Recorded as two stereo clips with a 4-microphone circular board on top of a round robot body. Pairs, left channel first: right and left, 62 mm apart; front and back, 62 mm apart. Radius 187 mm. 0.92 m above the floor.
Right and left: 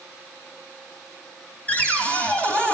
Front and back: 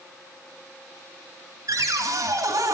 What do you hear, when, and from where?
1.7 s a cupboard door: 160° right, 2 m